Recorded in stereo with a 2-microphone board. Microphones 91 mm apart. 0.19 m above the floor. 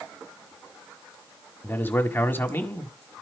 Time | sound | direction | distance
1.6 | a man speaking | 25° left (ahead or behind) | 1.6 m